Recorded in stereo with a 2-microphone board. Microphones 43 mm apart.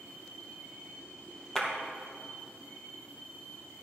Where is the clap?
10° left (ahead or behind), 2.5 m.